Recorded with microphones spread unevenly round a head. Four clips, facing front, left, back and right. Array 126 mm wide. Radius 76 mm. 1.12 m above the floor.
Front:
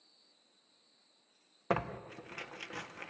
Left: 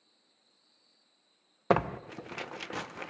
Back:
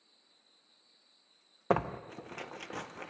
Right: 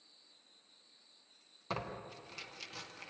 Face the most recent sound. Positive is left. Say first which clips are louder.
# left 14 dB, back 4 dB
turn(degrees=105)